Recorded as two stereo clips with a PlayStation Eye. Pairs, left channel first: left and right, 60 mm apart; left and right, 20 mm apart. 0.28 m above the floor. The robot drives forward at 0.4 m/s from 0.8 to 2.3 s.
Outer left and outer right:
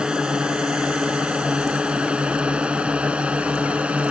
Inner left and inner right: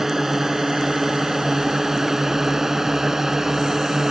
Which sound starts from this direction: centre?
A drone, at 0.0 s.